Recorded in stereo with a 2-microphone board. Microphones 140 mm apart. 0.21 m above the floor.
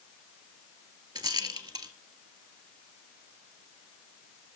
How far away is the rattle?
About 0.8 m.